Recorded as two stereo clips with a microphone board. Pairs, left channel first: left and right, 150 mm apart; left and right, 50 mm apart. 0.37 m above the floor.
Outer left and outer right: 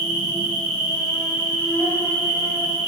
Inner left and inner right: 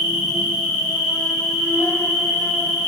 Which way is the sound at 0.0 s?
15° left (ahead or behind).